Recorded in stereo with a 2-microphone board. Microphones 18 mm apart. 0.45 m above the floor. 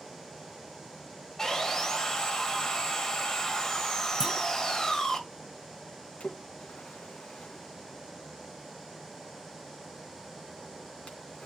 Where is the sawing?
25° left (ahead or behind), 1.8 m.